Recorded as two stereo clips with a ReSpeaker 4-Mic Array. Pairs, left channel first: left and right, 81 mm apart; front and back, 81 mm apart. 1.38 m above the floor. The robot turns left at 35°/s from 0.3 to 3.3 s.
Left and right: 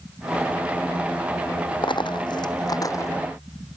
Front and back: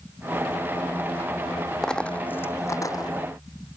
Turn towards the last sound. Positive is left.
turn(degrees=30)